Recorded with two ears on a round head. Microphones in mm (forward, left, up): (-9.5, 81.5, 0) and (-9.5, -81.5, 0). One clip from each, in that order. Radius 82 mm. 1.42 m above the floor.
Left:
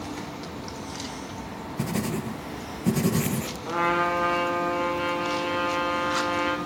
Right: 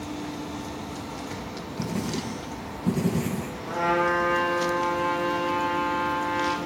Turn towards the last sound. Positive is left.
turn(degrees=85)